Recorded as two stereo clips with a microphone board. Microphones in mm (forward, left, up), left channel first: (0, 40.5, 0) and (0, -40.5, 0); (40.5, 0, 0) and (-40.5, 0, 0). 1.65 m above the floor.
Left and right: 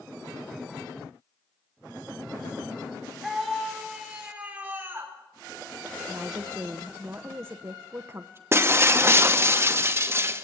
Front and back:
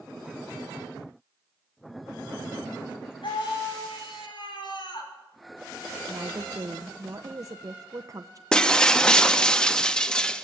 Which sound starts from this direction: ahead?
A scream, at 3.2 s.